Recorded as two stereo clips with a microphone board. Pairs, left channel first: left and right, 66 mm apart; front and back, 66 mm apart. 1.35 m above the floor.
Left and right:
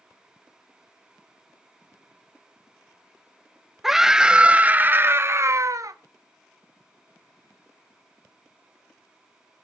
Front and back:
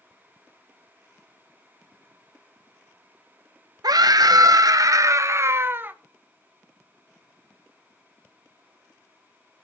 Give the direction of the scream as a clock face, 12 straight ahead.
6 o'clock.